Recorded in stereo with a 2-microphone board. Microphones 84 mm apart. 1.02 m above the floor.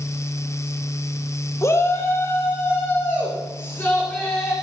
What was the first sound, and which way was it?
A shout, 35° left (ahead or behind).